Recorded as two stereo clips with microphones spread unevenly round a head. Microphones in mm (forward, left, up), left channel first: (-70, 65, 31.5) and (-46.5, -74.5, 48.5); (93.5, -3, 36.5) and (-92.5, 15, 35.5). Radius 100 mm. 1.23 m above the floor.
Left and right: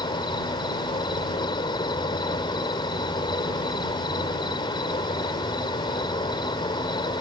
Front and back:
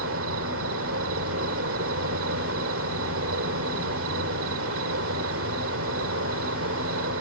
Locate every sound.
0.0 s an insect: 160° left